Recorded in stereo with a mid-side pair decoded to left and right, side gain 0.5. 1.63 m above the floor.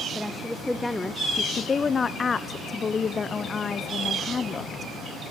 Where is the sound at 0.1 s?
Straight ahead, 1.8 m; by 1.4 s 20° left, 0.9 m.